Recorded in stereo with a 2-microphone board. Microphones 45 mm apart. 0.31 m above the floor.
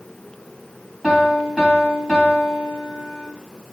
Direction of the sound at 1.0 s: Centre (ahead or behind).